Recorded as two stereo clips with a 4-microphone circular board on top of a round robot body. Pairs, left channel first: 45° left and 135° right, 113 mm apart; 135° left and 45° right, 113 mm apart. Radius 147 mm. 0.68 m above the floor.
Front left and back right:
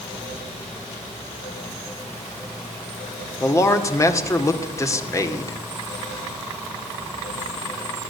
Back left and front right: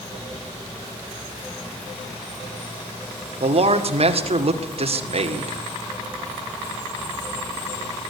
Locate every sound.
3.4 s a man speaking: 20° right, 2 m